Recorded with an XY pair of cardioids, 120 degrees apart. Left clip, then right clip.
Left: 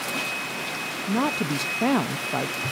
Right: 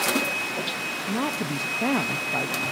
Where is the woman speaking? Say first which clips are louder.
Left 6 dB; 20° left, 0.7 m.